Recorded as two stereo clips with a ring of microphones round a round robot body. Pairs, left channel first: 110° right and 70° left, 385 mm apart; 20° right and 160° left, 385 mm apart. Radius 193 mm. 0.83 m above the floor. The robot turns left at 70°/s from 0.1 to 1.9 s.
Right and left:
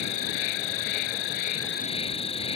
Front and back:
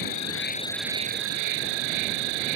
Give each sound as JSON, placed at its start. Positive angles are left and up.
{"t": 0.0, "sound": "an insect", "azimuth_deg": -65}